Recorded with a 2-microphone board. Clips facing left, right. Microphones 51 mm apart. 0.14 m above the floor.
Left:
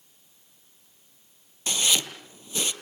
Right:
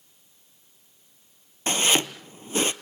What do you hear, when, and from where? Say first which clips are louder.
1.7 s chopping: right 4 dB; 40° right (ahead or behind), 1.0 m